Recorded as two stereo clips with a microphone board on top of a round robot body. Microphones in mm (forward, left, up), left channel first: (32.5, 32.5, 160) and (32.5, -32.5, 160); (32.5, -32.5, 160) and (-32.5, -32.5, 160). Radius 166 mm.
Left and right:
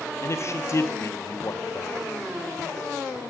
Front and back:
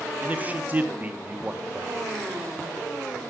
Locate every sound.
0.2 s a man speaking: 120° left, 1.1 m